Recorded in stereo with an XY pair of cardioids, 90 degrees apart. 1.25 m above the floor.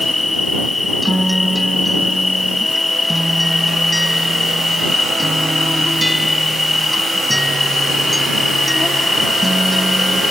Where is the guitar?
5° right.